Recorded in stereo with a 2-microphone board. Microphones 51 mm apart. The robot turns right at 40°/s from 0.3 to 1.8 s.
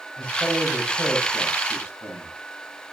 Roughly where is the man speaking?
Centre.